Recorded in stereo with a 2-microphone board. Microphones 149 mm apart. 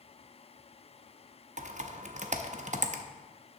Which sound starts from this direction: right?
Typing on a keyboard, at 1.6 s.